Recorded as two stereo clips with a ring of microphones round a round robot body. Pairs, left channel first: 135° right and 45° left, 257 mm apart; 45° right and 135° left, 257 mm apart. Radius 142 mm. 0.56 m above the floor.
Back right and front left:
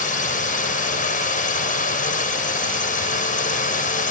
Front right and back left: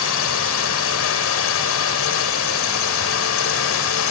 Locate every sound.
0.0 s a drone: 75° right